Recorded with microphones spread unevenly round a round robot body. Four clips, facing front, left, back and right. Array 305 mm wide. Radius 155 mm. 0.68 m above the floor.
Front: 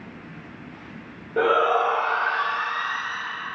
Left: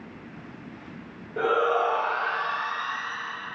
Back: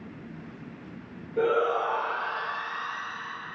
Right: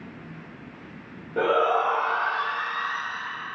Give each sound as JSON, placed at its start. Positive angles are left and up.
{"t": 1.4, "sound": "a shout", "azimuth_deg": -35, "distance_m": 1.7}